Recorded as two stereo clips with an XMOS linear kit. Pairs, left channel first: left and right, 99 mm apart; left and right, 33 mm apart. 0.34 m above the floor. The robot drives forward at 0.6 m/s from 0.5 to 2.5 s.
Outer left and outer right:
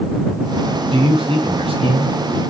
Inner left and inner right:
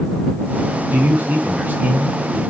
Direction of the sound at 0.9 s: 65° right (ahead or behind).